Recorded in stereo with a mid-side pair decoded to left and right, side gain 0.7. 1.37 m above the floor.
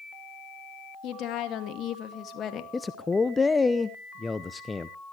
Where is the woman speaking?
55° left, 2.5 m; by 2.6 s 35° left, 2.5 m.